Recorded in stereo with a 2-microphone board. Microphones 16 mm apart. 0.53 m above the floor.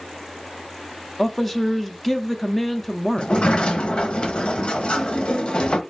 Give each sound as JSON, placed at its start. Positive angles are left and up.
{"t": 1.2, "sound": "a man speaking", "side_deg": 15, "distance_m": 0.6}
{"t": 3.2, "sound": "a sliding door", "side_deg": 85, "distance_m": 0.8}